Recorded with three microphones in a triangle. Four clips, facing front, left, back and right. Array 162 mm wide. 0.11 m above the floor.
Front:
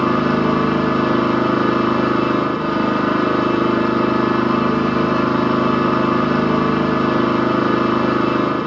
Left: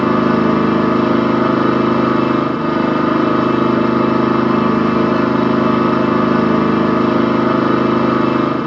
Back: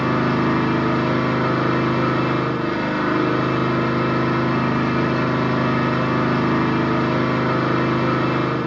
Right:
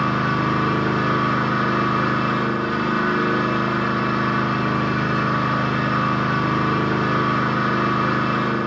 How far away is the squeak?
I don't hear a squeak.